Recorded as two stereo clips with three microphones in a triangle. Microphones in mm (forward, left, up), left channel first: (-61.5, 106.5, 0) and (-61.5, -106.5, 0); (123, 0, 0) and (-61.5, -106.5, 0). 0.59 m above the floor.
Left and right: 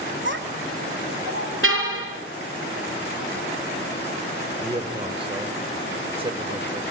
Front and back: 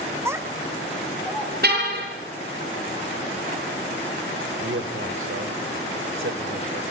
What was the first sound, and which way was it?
A child speaking, 75° right.